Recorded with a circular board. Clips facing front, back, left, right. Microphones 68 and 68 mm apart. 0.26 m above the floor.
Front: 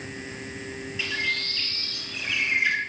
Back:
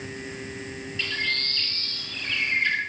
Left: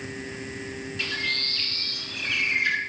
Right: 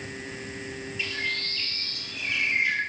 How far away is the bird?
About 1.0 m.